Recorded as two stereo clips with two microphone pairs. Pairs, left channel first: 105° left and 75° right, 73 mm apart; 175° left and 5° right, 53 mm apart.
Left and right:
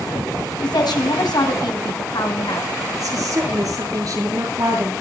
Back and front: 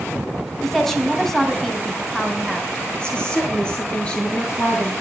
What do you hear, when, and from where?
0.6 s a woman speaking: 90° left, 3.5 m
3.0 s a woman speaking: 115° right, 8 m